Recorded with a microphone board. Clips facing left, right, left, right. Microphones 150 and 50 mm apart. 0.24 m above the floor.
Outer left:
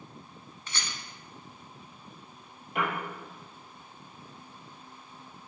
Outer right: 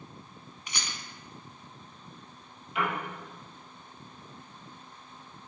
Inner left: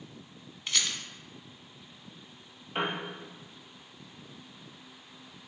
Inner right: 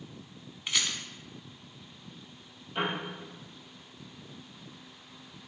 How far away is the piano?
About 2.5 m.